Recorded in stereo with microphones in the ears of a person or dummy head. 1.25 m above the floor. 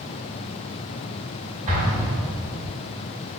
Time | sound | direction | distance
1.7 | an explosion | 35° right (ahead or behind) | 1.1 m